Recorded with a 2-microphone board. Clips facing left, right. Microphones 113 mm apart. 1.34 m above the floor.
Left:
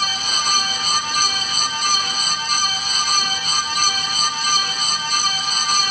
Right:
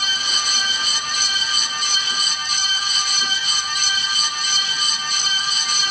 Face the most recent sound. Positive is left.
No sound to turn to.